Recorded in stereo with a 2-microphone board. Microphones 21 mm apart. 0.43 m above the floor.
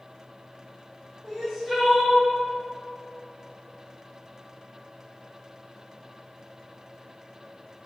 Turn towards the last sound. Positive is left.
turn(degrees=-35)  # may be behind; listen again after turning